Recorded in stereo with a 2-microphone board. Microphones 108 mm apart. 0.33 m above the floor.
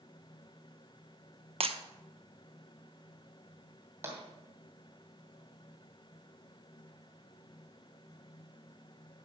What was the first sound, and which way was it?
Breaking glass, 65° right (ahead or behind).